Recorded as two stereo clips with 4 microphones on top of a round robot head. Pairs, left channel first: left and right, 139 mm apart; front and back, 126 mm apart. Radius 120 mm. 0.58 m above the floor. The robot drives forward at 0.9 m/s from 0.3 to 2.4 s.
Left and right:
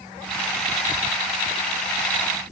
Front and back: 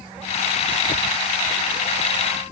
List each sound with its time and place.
Only background noise.